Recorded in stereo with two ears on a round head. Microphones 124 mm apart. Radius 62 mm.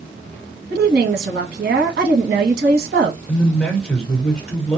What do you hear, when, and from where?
0.7 s a woman speaking: 85° right, 1.3 m
3.3 s a man speaking: 5° left (ahead or behind), 1.2 m